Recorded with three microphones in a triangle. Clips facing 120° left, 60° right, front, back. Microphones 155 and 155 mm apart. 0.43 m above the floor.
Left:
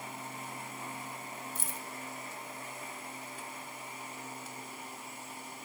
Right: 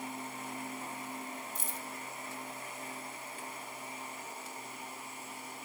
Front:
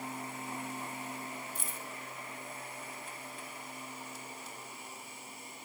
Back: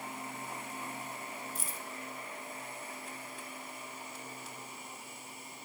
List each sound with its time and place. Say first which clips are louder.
1.6 s keys jangling: even, even; 130° left, 1.9 m